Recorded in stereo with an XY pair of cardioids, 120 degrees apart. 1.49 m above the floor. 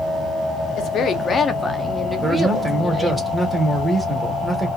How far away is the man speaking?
About 1.3 m.